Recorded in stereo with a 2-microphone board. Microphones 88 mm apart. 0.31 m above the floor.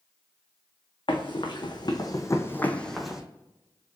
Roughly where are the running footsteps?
Left.